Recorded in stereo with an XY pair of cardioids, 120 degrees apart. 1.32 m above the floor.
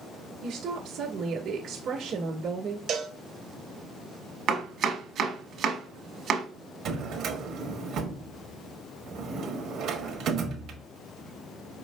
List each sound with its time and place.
0.4 s a woman speaking: 60° right, 1.5 m
2.9 s a cowbell: 55° right, 0.9 m
4.5 s chopping: 60° right, 1.2 m
6.8 s a drawer: 70° right, 1.3 m